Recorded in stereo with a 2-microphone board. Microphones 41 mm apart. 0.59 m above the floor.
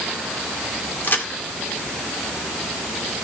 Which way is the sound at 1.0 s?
50° left (ahead or behind).